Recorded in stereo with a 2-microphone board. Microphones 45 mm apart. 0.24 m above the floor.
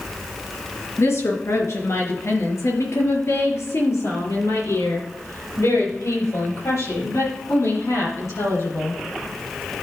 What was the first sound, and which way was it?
A woman speaking, 70° left (ahead or behind).